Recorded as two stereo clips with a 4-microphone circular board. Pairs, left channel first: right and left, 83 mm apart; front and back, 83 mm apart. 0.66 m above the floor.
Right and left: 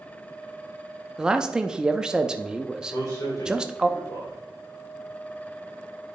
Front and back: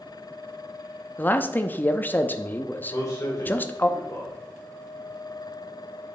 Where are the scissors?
I don't hear scissors.